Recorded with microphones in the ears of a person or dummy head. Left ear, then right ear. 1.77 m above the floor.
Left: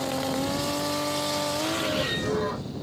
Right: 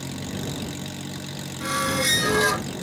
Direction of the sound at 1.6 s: 65° right (ahead or behind).